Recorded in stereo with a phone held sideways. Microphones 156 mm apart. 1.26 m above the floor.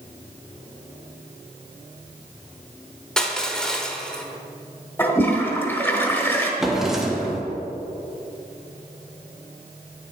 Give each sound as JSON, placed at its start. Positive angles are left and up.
{"t": 3.2, "sound": "crushing", "side_deg": 5, "distance_m": 0.9}
{"t": 5.0, "sound": "a toilet flushing", "side_deg": 15, "distance_m": 1.1}
{"t": 6.6, "sound": "a drawer", "side_deg": -5, "distance_m": 1.0}